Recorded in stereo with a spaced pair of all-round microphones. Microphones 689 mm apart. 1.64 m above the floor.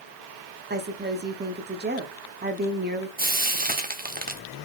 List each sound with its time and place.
0.7 s a woman speaking: 15° right (ahead or behind), 0.6 m
3.2 s frying: 15° right (ahead or behind), 0.7 m